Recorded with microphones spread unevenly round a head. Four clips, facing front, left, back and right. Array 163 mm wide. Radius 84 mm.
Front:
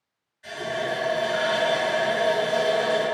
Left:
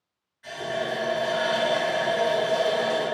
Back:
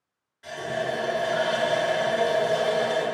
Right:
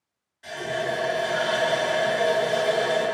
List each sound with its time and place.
0.4 s a running tap: 145° right, 1.5 m